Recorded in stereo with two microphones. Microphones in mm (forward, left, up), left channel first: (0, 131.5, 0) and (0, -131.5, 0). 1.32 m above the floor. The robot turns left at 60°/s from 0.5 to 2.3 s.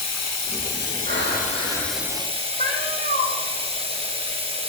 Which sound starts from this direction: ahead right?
Breathing, at 1.1 s.